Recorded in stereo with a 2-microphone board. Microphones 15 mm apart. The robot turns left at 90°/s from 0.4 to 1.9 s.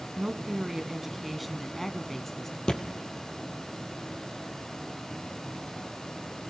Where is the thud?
50° left (ahead or behind), 1.9 m.